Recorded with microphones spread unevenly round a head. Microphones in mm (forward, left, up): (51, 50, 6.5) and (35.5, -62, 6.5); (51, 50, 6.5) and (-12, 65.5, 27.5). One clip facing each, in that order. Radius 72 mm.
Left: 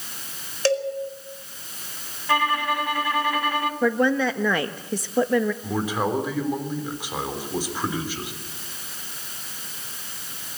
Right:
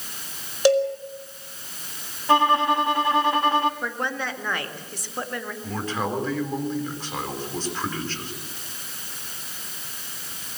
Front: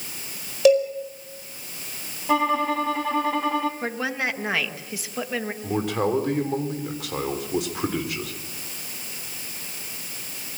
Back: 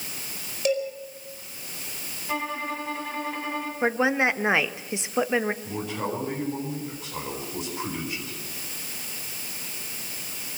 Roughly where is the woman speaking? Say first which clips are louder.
Left 9 dB, back 5 dB; left.